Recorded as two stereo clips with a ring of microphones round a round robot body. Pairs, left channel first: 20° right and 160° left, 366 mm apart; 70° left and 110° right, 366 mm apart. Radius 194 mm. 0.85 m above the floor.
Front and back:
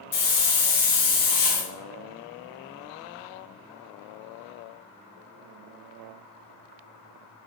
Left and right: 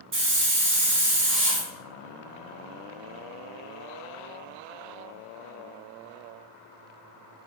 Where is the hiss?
55° right, 1.3 m.